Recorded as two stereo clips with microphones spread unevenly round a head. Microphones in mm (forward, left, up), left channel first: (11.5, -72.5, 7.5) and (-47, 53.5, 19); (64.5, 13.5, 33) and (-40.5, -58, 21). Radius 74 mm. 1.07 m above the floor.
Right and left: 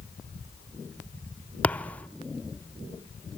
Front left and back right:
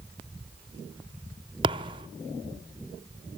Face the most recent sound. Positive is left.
turn(degrees=-145)